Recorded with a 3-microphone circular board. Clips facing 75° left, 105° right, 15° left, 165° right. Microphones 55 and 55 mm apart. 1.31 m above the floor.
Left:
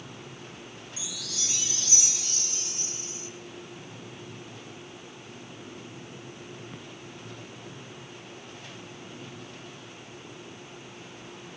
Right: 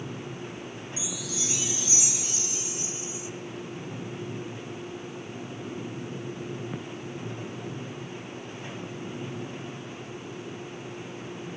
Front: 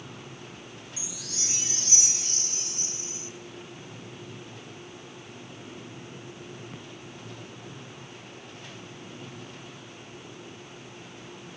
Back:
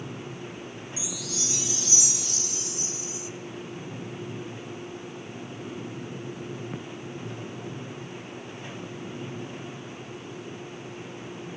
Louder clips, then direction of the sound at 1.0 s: Right 5 dB, back 7 dB; 30° right.